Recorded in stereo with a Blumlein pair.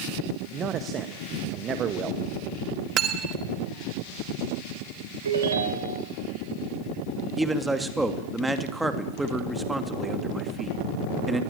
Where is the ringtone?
70° right, 3.5 m.